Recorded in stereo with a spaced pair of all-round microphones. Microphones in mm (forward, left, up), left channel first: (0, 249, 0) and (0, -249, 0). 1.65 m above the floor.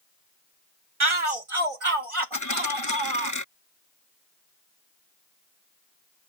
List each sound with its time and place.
1.0 s a shout: 70° right (ahead or behind); by 3.3 s 85° right
2.3 s a dropped coin: 35° left (ahead or behind)